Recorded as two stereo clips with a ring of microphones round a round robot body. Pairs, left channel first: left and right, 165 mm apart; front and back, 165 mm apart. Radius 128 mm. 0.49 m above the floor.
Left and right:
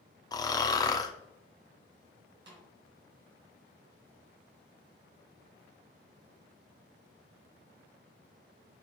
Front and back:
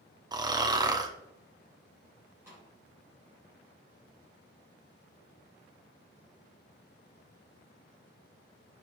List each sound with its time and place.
0.3 s snoring: 140° left, 0.9 m
2.5 s a snare drum: 100° right, 2 m